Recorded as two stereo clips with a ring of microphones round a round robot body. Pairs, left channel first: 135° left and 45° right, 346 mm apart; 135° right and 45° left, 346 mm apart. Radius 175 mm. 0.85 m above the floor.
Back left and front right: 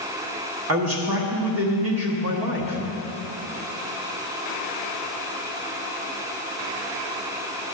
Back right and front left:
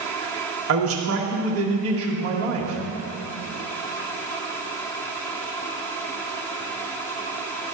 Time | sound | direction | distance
0.7 | a man speaking | straight ahead | 1.2 m